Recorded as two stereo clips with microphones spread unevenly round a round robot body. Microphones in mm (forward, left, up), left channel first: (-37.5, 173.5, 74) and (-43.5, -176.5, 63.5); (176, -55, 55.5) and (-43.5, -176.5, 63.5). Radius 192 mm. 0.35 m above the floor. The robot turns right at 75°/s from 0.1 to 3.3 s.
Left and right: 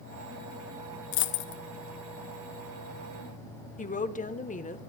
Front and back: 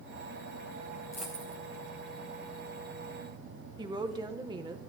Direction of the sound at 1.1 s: 110° left.